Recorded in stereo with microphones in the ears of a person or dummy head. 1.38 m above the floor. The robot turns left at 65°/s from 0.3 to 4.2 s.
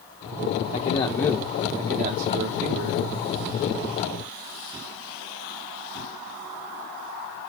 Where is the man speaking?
45° left, 1.0 m; by 3.0 s 105° right, 1.0 m.